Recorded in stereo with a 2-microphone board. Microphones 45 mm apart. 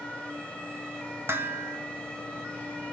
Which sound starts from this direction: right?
Dishes clattering, at 1.3 s.